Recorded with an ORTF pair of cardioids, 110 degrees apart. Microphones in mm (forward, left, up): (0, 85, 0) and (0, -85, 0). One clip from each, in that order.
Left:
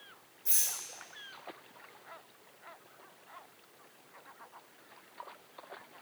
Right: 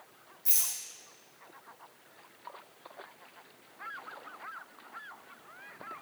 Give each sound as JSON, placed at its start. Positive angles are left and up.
{"t": 0.5, "sound": "a rattle", "azimuth_deg": -40, "distance_m": 1.4}